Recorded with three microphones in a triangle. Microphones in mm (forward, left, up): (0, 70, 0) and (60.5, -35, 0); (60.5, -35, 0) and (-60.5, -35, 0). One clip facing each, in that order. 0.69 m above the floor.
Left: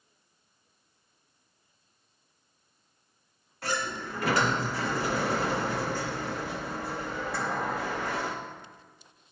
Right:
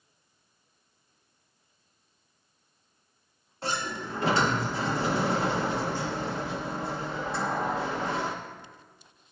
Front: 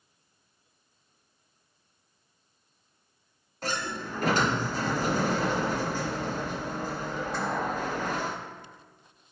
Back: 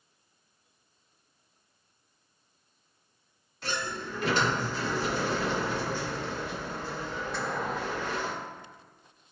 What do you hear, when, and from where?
3.6 s a sliding door: 10° right, 0.9 m